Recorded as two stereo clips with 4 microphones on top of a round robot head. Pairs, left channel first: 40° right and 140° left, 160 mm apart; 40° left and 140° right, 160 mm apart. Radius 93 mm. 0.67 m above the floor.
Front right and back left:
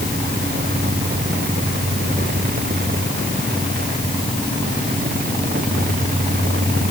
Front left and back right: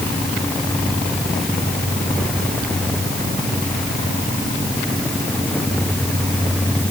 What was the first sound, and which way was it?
Only background noise.